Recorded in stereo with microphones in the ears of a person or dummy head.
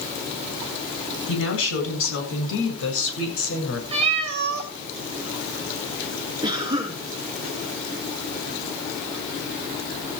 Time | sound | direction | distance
1.3 | a woman speaking | 85° left | 8.5 m
3.9 | a cat meowing | 30° right (ahead or behind) | 1.7 m
6.4 | a cough | 25° right (ahead or behind) | 5 m